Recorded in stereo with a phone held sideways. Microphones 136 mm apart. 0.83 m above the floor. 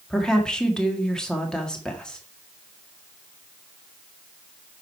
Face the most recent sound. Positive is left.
turn(degrees=5)  # may be behind; listen again after turning